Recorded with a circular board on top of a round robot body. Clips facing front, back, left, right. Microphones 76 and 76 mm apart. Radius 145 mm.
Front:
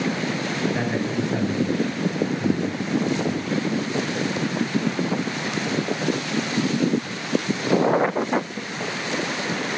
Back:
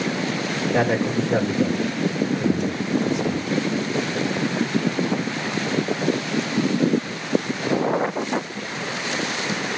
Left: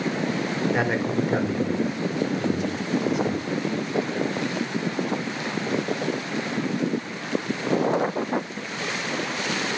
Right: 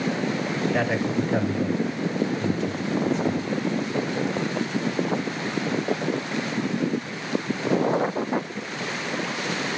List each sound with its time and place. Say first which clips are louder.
0.7 s a man speaking: back 4 dB, right 1 dB; 165° left, 4.5 m